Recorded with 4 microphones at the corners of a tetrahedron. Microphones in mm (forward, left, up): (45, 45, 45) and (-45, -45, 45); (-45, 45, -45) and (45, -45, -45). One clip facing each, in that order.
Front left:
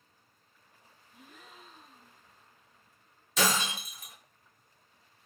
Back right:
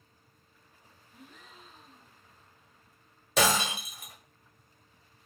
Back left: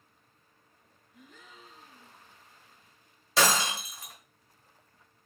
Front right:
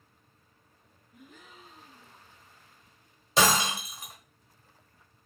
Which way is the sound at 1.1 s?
35° right.